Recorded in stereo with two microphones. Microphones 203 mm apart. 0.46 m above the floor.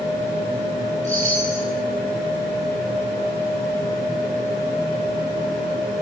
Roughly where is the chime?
Left.